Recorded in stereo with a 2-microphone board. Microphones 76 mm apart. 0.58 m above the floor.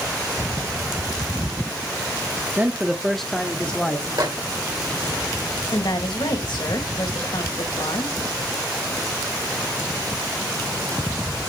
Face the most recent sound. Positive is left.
turn(degrees=75)  # may be behind; listen again after turning